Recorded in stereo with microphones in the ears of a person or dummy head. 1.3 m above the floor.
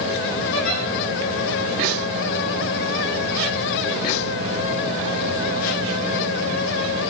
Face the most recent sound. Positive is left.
turn(degrees=75)  # may be behind; listen again after turning